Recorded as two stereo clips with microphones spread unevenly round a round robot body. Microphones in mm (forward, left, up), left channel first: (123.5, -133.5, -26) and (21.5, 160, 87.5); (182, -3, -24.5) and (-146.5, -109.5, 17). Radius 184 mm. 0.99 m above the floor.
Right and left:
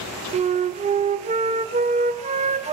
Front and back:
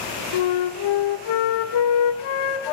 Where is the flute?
35° left, 0.8 m.